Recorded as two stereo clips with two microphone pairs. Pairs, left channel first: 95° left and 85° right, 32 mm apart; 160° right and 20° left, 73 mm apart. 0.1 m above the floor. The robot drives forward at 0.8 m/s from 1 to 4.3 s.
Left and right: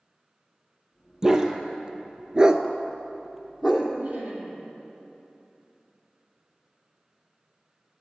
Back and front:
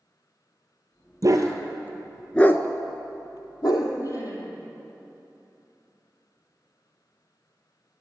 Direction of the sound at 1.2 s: 10° right.